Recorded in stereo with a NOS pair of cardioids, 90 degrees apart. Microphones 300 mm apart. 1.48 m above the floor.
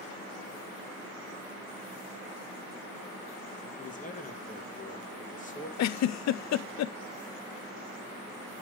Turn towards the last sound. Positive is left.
turn(degrees=60)